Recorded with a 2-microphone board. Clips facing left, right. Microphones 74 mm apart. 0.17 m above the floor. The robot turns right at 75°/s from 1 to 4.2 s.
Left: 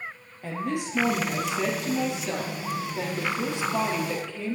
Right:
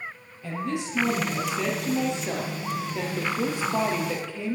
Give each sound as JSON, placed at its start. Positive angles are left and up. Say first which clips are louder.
{"t": 0.4, "sound": "a woman speaking", "louder": "even", "azimuth_deg": 120, "distance_m": 3.5}